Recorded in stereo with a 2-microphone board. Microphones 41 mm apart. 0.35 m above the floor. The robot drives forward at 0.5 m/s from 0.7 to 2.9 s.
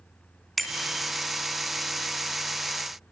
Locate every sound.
0.6 s a bicycle bell: centre (ahead or behind), 2.5 m